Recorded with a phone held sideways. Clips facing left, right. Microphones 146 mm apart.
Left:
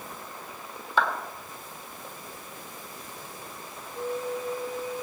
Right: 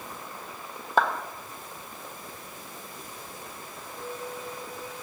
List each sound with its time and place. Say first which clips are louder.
1.0 s a clap: right 2 dB; 45° right (ahead or behind), 1.5 m
4.0 s a flute: left 7 dB; 25° left (ahead or behind), 1.2 m